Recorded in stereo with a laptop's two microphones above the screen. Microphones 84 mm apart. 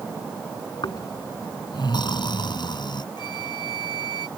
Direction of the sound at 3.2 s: 65° left (ahead or behind).